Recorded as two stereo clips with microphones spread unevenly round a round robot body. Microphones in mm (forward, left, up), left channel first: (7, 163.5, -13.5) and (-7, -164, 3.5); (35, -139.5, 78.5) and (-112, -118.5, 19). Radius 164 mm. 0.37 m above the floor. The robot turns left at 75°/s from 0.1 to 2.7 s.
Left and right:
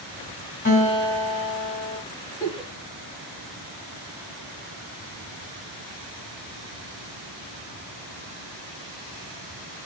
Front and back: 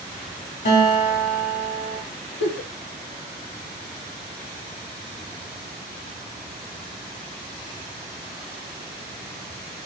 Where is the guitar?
20° left, 3.5 m; by 2.0 s 80° right, 3.5 m.